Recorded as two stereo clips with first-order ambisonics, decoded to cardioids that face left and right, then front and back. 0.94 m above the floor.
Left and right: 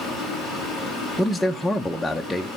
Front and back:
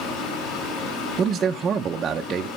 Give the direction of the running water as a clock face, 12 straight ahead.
12 o'clock.